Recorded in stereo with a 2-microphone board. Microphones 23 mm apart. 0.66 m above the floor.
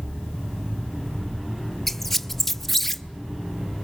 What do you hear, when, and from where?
1.9 s a squeak: 5° left (ahead or behind), 0.7 m